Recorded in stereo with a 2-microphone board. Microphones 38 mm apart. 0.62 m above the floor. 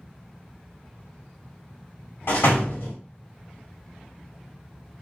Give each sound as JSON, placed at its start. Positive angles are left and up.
{"t": 2.3, "sound": "a door slam", "side_deg": 65, "distance_m": 1.2}